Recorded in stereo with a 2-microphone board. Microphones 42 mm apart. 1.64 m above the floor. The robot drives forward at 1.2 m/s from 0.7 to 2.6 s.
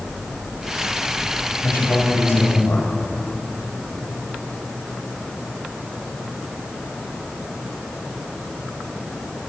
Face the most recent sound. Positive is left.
turn(degrees=85)